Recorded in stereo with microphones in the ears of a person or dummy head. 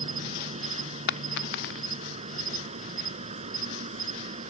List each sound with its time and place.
0.0 s an insect: 35° right (ahead or behind)
1.1 s a dropped coin: 55° left (ahead or behind)